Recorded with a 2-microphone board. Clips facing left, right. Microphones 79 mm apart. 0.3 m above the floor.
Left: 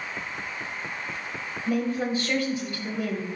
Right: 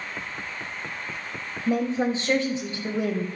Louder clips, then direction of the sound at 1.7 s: Right 2 dB; 30° right (ahead or behind).